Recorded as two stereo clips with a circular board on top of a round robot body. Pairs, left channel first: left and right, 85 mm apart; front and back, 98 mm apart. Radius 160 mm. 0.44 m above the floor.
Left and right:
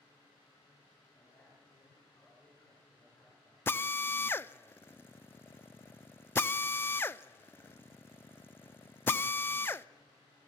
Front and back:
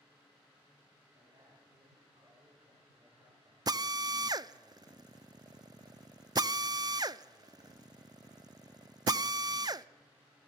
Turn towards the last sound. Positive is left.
turn(degrees=145)